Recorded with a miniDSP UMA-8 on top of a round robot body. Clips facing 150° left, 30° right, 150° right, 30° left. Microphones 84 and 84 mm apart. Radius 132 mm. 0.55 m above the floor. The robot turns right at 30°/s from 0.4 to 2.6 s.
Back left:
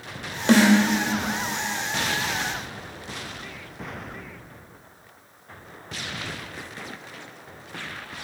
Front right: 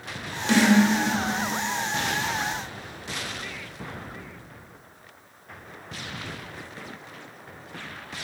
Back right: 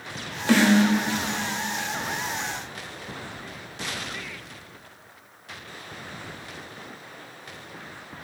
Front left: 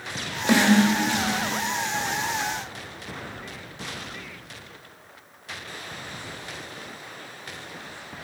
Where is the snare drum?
105° left, 1.7 m; by 0.8 s 115° left, 1.7 m.